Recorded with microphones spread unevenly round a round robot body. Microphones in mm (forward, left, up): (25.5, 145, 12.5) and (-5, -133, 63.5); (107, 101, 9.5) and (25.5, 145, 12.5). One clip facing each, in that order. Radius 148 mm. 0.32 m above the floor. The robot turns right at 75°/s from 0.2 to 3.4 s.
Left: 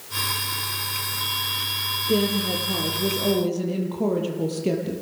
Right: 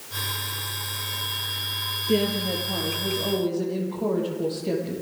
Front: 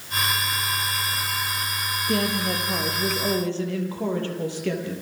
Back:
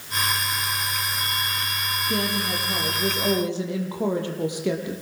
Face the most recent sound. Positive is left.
turn(degrees=80)